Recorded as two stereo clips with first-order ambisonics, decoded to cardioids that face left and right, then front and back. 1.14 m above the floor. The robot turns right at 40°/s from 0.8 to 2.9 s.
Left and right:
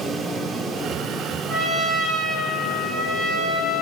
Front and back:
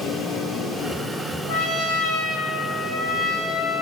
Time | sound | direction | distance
1.5 | a trumpet | 10° right | 1.5 m